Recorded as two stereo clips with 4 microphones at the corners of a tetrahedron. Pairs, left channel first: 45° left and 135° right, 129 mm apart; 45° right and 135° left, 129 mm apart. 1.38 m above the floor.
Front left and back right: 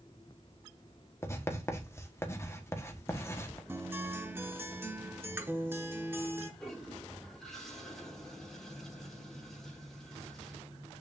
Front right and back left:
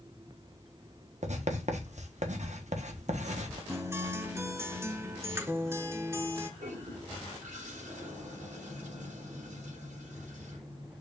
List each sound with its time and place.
1.2 s writing: 115° left, 1.3 m
3.7 s a guitar: 175° left, 1.0 m
6.6 s a toilet flushing: 130° left, 3.5 m